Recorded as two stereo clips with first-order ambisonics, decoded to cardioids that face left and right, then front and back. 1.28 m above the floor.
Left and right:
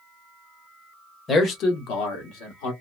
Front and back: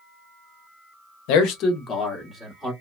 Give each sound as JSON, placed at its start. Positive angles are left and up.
{"t": 1.3, "sound": "a man speaking", "azimuth_deg": 20, "distance_m": 0.8}